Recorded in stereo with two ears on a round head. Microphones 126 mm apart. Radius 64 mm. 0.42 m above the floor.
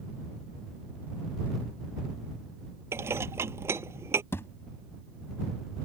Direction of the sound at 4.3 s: 15° left (ahead or behind).